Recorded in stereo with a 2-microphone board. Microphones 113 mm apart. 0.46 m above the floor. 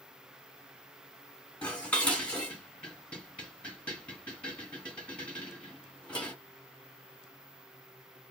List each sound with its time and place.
1.6 s dishes clattering: 10° left (ahead or behind), 2.5 m